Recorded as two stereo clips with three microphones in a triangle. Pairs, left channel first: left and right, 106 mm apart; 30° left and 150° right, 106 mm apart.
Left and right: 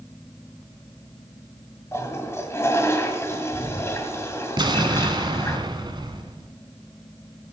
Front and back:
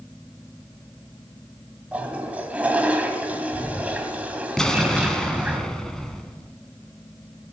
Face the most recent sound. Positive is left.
turn(degrees=-55)